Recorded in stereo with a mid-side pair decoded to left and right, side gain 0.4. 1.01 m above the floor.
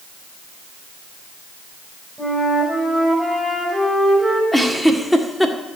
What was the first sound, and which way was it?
A flute, 5° left.